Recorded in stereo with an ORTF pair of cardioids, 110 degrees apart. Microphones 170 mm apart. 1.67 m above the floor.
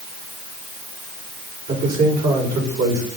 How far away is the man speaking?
About 5.5 m.